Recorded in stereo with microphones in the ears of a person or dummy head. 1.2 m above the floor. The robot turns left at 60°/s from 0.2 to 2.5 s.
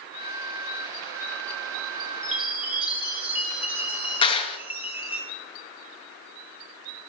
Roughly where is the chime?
Centre.